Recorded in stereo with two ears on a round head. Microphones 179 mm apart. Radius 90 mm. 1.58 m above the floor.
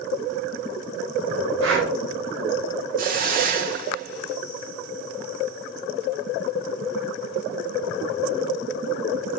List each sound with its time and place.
1.6 s breathing: 70° right (ahead or behind), 4.5 m
3.0 s a hiss: 45° right (ahead or behind), 2.5 m